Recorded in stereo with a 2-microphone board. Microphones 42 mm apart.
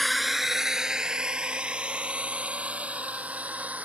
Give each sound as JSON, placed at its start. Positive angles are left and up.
{"t": 0.0, "sound": "a drone", "side_deg": 5}